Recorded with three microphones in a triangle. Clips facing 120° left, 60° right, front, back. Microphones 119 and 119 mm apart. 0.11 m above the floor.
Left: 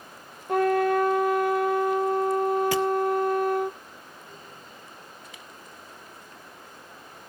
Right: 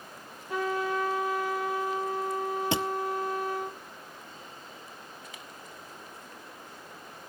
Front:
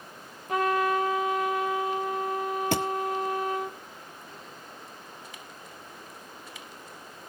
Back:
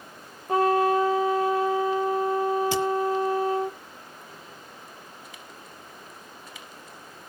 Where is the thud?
Straight ahead, 1.0 m.